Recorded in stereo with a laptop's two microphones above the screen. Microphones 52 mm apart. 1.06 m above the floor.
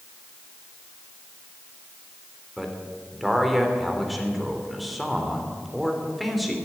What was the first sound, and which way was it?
A man speaking, centre (ahead or behind).